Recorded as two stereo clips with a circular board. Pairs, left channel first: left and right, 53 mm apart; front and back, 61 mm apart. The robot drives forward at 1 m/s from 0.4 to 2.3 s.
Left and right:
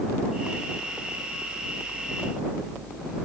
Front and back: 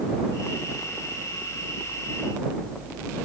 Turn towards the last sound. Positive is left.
No sound to turn to.